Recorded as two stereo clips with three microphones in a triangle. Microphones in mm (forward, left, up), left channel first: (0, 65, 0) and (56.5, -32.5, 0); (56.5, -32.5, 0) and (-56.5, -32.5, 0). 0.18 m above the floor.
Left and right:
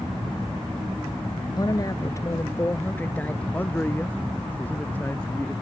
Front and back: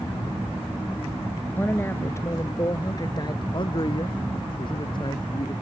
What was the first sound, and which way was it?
A woman speaking, 70° left.